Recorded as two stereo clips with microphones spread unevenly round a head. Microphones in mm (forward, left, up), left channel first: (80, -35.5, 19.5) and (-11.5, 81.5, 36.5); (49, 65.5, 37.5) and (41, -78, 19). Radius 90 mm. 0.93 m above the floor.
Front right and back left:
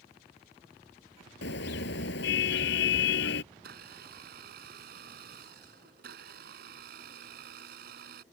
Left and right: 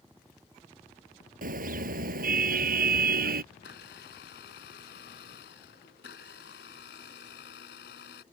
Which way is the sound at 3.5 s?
120° left.